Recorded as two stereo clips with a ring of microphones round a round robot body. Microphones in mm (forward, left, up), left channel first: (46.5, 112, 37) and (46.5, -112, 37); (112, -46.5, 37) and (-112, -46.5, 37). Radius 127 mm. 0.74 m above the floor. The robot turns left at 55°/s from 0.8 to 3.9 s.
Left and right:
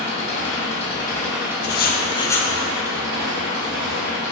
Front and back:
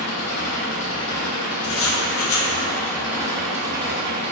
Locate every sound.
0.0 s an engine running: 30° left, 2.5 m; by 4.3 s 140° right, 2.5 m
1.6 s writing: 50° left, 0.9 m; by 2.5 s straight ahead, 0.9 m